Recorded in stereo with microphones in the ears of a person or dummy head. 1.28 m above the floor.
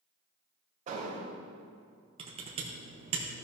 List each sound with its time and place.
0.9 s an explosion: 40° right (ahead or behind), 1.7 m
2.2 s typing on a keyboard: 30° right (ahead or behind), 1.0 m